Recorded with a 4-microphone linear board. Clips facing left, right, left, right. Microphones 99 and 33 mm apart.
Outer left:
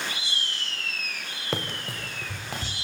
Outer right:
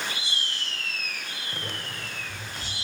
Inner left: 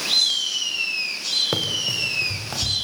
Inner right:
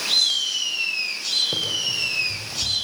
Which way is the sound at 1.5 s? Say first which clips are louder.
Outer left 7 dB, inner left 1 dB; 90° left.